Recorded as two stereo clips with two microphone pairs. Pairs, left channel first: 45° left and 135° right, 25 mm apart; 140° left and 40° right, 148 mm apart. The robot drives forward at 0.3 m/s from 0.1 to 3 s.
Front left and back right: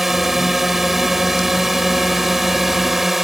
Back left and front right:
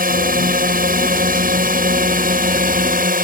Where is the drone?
55° right.